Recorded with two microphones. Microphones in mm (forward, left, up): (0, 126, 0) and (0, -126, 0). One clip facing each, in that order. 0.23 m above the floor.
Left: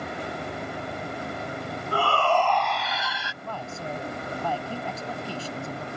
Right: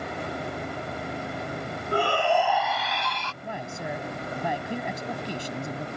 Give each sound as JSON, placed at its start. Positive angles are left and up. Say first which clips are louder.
{"t": 1.9, "sound": "a shout", "louder": "right 1 dB", "side_deg": -20}
{"t": 3.4, "sound": "a man speaking", "louder": "even", "side_deg": -15}